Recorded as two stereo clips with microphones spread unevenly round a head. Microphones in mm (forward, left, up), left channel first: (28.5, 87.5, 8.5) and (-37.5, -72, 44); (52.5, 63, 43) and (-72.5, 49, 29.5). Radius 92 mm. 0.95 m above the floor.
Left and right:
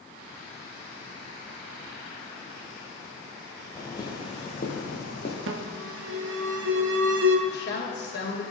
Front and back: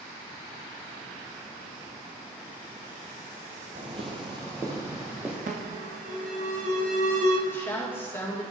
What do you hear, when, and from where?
3.8 s footsteps: 150° left, 1.5 m; by 5.4 s 105° left, 1.9 m
5.5 s an alarm: 135° right, 0.8 m
7.5 s a woman speaking: 80° left, 2.5 m